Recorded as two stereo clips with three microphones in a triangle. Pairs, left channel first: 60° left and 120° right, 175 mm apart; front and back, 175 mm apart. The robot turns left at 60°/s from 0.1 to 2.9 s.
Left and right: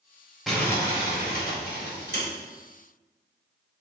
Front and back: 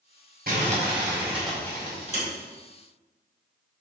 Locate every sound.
0.5 s crumpling: 150° left, 4 m; by 2.2 s 45° left, 4 m